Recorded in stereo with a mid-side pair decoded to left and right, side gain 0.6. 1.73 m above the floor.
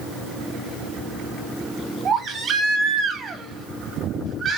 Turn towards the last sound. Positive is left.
turn(degrees=-40)